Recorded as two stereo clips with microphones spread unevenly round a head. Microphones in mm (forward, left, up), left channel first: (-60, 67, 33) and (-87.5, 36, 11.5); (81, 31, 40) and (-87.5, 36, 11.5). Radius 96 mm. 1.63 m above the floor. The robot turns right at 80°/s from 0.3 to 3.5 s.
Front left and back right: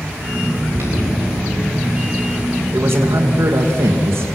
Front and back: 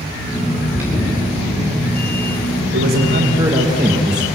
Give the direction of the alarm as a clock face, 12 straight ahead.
4 o'clock.